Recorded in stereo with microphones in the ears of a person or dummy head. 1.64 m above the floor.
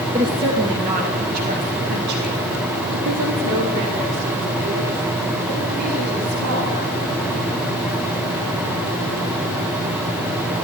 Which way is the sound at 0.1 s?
25° right (ahead or behind).